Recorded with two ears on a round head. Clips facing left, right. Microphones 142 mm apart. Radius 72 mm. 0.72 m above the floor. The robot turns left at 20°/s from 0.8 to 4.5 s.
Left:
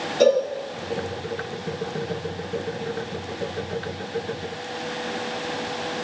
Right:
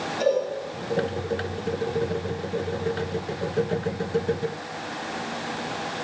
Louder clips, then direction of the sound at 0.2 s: Left 5 dB; 60° left (ahead or behind).